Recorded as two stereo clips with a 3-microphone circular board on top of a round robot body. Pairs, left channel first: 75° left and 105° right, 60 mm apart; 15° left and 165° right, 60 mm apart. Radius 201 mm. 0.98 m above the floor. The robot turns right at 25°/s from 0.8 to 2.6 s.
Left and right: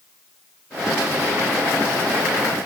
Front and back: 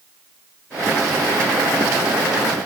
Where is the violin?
No violin in this recording.